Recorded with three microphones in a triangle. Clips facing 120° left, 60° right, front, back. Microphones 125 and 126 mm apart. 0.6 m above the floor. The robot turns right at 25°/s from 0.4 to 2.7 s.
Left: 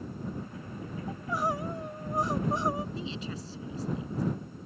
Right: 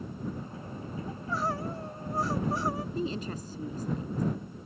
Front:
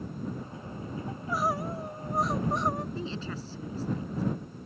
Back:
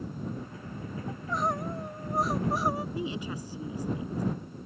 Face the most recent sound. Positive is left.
turn(degrees=-105)